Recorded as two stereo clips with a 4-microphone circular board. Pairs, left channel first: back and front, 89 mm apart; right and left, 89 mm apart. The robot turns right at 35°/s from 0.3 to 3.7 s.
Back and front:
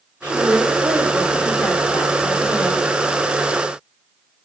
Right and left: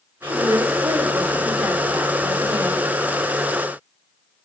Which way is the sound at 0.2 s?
45° left.